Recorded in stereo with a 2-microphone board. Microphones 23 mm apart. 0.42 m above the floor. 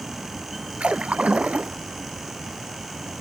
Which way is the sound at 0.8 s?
80° right.